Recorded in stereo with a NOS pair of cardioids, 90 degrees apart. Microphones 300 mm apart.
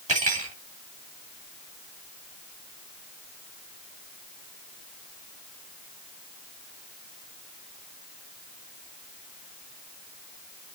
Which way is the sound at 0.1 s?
25° right.